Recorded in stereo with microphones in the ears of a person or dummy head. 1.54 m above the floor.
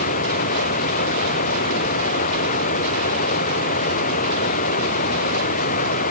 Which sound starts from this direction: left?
Running water, at 0.0 s.